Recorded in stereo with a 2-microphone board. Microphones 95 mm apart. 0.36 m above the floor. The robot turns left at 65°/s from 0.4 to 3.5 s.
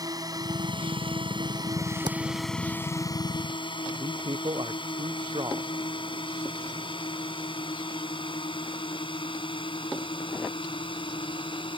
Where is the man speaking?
55° right (ahead or behind).